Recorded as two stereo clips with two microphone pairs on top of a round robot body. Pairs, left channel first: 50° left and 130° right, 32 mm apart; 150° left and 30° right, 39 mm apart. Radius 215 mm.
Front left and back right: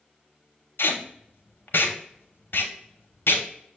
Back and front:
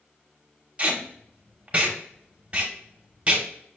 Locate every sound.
0.8 s tape being pulled: 35° left, 0.7 m